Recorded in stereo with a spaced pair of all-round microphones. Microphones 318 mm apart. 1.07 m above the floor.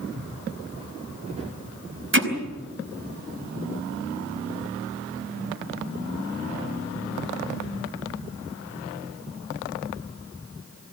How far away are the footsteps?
About 6 m.